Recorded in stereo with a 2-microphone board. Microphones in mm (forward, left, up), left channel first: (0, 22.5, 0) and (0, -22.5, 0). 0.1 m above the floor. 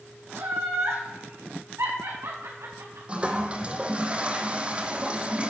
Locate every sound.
0.3 s laughter: 70° right (ahead or behind), 4 m
3.1 s a toilet flushing: 25° right (ahead or behind), 1.3 m